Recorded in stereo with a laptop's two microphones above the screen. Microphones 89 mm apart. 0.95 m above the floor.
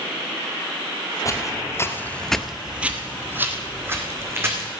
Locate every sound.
1.2 s footsteps: 35° left (ahead or behind), 1.6 m; by 4.7 s 30° right (ahead or behind), 4 m